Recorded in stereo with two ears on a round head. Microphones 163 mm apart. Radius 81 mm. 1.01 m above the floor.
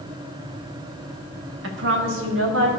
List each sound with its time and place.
1.6 s a woman speaking: 75° right (ahead or behind), 1.5 m; by 2.7 s 80° right, 2.5 m